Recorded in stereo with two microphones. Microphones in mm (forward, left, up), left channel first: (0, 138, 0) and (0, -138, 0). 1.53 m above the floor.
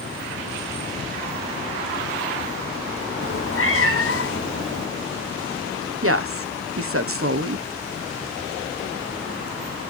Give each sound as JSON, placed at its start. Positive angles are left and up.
{"t": 3.2, "sound": "a cat meowing", "side_deg": 50, "distance_m": 1.2}
{"t": 6.0, "sound": "a woman speaking", "side_deg": -50, "distance_m": 1.0}